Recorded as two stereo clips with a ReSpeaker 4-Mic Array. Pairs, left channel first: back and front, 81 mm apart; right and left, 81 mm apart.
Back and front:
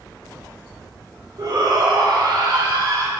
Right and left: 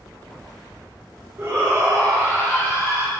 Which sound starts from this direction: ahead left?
A shout, at 1.4 s.